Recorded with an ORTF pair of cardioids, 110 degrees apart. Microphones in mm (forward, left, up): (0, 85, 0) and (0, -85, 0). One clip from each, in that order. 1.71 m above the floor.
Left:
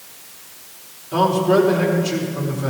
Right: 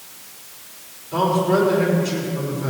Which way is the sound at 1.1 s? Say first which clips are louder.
Left 3 dB; 25° left.